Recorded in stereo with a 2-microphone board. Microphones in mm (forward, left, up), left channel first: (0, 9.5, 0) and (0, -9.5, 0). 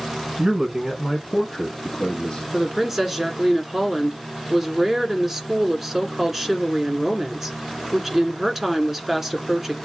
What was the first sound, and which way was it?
A man speaking, 25° right (ahead or behind).